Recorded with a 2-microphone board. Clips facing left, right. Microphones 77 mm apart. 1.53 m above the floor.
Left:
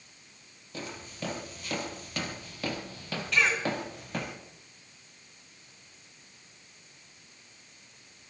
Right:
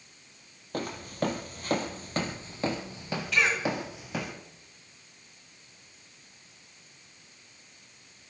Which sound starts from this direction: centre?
A cough, at 3.3 s.